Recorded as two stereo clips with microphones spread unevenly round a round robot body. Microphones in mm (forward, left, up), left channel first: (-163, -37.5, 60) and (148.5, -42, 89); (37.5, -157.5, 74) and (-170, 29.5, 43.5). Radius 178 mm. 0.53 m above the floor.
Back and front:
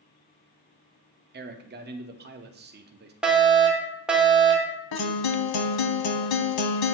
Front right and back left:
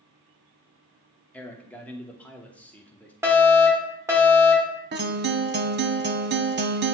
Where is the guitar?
165° right, 0.9 m.